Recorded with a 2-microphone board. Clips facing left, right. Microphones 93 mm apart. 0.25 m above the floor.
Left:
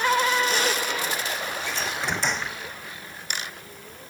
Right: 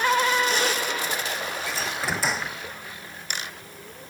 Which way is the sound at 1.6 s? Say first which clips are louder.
Even; 5° right (ahead or behind).